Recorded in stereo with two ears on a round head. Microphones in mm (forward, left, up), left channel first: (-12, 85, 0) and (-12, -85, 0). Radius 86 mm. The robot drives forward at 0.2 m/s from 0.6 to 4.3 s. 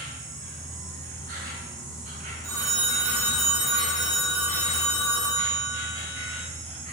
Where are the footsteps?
No footsteps in this recording.